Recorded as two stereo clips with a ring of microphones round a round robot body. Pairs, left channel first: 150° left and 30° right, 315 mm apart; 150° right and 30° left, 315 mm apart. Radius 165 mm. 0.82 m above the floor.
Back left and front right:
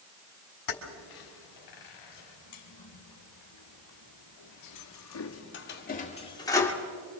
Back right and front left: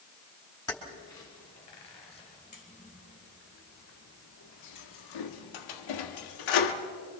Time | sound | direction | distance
0.7 | keys jangling | 130° left | 4 m